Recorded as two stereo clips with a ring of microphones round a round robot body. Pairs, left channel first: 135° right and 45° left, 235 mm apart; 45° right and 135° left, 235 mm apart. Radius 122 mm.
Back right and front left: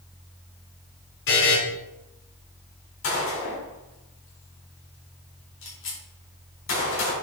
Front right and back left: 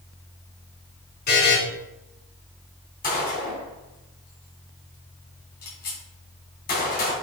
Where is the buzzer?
95° right, 3.5 m.